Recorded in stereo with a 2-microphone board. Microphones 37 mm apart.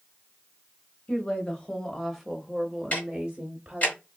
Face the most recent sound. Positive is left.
turn(degrees=40)  # may be behind; listen again after turning